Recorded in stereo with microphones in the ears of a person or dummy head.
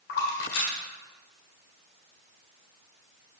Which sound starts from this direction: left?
A splash, at 0.1 s.